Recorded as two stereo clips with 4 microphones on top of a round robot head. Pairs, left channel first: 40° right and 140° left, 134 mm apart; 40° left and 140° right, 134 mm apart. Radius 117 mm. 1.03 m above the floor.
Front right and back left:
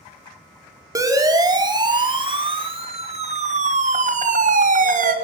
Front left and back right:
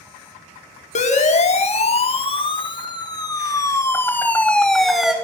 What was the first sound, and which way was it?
A siren, 70° left.